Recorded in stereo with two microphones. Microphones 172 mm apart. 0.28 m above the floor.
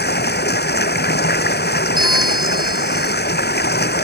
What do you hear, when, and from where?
0.0 s running water: 70° left (ahead or behind)
2.0 s a bell: 25° right (ahead or behind)